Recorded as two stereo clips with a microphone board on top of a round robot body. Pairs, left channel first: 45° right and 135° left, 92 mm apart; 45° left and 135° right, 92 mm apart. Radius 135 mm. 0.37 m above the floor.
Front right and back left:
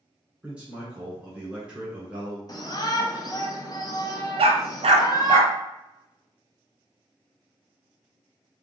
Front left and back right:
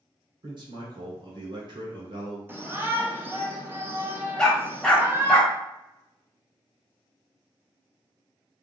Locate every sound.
0.4 s a man speaking: 150° right, 1.9 m
2.5 s a shout: 75° right, 1.3 m
4.4 s a dog barking: 130° left, 0.8 m